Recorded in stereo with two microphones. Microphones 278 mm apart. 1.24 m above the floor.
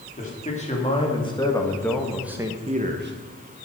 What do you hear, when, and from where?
0.2 s a man speaking: 25° left (ahead or behind), 3 m; by 3.7 s 70° right (ahead or behind), 1.1 m